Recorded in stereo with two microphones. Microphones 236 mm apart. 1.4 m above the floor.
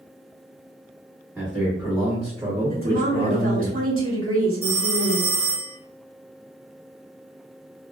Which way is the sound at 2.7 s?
60° right (ahead or behind).